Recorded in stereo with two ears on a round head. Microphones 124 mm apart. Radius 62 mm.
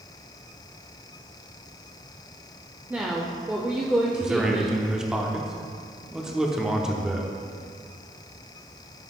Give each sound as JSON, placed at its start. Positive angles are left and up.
{"t": 2.9, "sound": "a woman speaking", "side_deg": -10, "distance_m": 0.6}
{"t": 4.2, "sound": "a man speaking", "side_deg": -5, "distance_m": 0.9}